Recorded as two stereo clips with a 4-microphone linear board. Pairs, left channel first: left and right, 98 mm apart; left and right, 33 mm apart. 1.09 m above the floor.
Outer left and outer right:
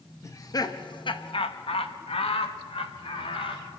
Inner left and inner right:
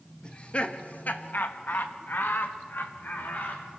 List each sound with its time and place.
0.2 s laughter: 35° left (ahead or behind), 1.4 m; by 3.7 s 65° left (ahead or behind), 2.5 m